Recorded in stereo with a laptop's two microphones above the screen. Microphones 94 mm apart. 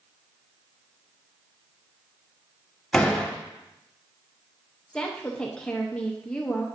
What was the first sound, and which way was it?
A door slam, 5° left (ahead or behind).